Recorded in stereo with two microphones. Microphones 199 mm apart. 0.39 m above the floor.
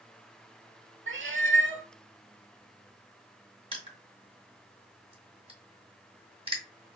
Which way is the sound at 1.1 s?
75° right (ahead or behind).